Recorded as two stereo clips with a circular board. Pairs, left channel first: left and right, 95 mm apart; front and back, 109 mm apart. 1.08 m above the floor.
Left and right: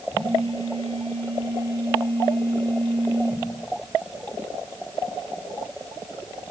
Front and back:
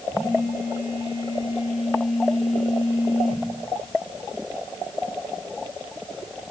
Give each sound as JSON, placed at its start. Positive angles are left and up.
{"t": 0.1, "sound": "a phone buzzing", "azimuth_deg": -110, "distance_m": 9.5}